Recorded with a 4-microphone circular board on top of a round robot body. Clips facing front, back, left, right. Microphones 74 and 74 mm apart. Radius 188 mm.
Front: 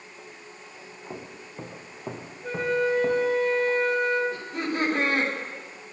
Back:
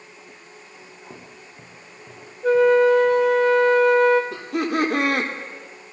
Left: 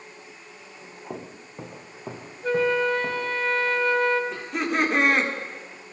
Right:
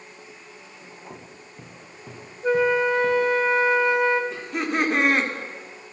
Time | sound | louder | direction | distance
1.1 | footsteps | front 7 dB, left 5 dB | 75° left | 1.4 m
2.4 | a flute | back 11 dB, right 2 dB | 165° right | 0.9 m
4.3 | laughter | back 6 dB, even | straight behind | 4 m